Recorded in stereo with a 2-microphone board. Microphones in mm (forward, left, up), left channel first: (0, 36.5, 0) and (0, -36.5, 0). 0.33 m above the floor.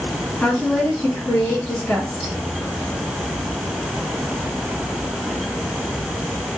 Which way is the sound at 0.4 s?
15° left (ahead or behind).